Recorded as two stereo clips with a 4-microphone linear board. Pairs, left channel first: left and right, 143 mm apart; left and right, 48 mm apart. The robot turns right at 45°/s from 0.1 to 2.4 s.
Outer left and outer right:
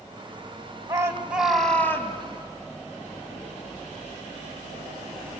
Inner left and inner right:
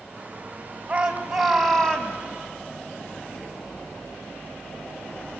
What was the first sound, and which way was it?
A shout, 30° right.